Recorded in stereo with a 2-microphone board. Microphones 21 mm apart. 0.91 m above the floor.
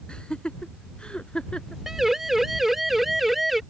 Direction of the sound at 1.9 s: 15° right (ahead or behind).